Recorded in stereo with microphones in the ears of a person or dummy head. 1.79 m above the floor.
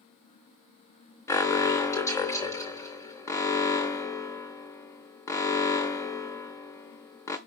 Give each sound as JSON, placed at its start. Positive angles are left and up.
{"t": 1.3, "sound": "an alarm", "side_deg": 20, "distance_m": 0.7}